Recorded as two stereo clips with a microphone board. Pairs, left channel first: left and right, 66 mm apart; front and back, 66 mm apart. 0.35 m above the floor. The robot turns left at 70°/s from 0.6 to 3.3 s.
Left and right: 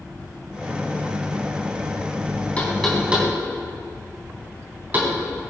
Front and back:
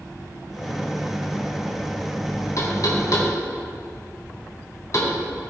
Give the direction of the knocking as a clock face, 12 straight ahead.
11 o'clock.